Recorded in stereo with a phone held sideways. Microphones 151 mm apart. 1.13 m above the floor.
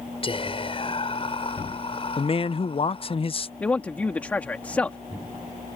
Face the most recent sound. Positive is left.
turn(degrees=10)  # may be behind; listen again after turning